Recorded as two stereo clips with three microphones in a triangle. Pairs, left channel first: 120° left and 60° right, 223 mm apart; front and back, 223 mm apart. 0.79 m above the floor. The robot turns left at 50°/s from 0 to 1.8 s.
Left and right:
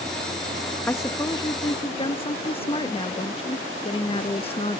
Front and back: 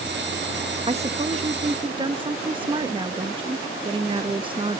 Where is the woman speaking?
170° right; by 4.8 s 145° left.